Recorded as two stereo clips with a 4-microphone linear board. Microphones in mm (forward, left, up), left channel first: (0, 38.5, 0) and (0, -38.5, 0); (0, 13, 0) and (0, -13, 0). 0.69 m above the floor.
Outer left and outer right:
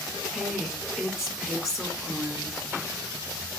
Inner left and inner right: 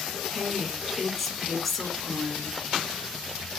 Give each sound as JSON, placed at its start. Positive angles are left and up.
{"t": 0.3, "sound": "a woman speaking", "side_deg": -5, "distance_m": 1.3}